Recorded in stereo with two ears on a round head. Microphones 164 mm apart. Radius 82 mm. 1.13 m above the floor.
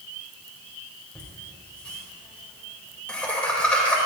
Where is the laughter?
5° left (ahead or behind), 4.5 m.